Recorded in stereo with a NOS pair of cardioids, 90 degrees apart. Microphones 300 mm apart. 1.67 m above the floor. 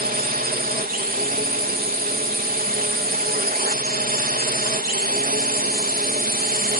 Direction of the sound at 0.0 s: 30° right.